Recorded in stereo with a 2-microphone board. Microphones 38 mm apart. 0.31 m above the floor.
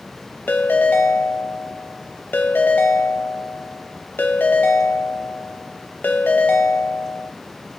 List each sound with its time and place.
0.5 s a ringtone: 55° left (ahead or behind), 0.6 m